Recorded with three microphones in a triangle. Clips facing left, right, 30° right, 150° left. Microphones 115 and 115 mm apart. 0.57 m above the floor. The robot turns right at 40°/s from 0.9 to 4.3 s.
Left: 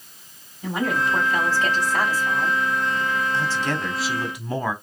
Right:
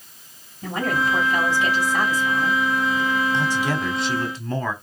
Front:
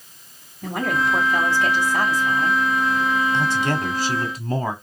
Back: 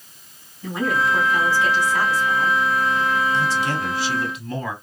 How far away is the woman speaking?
About 3.5 m.